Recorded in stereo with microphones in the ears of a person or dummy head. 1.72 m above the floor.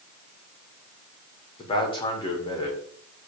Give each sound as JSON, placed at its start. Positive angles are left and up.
{"t": 1.6, "sound": "a man speaking", "side_deg": 25, "distance_m": 1.9}